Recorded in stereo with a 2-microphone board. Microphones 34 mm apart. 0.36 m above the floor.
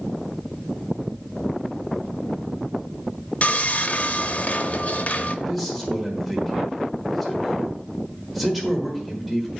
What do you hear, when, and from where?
3.4 s sawing: 45° left (ahead or behind), 0.6 m
5.5 s a man speaking: 5° right (ahead or behind), 1.4 m